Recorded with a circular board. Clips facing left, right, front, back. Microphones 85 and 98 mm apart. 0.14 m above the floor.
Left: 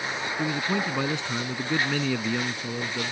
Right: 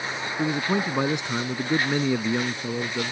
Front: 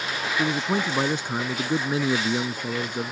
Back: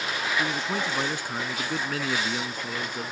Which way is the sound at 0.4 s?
40° right.